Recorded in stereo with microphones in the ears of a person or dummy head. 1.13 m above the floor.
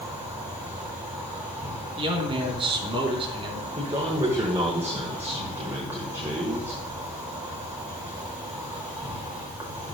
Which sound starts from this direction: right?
A man speaking, at 2.0 s.